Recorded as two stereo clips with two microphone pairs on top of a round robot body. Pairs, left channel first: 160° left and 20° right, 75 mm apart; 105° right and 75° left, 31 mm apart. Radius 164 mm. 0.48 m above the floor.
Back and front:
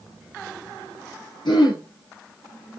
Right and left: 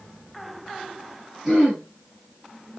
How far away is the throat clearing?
About 6.5 m.